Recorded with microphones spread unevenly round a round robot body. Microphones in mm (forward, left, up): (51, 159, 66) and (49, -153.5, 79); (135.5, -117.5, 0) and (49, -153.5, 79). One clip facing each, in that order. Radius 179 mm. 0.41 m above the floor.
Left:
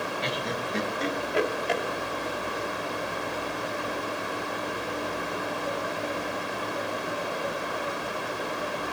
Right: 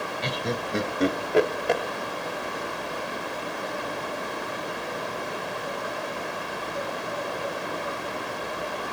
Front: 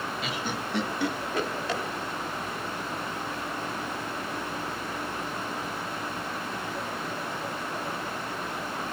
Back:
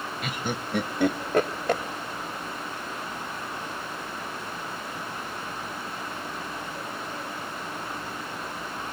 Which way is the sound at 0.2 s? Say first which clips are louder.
Right 2 dB, back 1 dB; 95° right.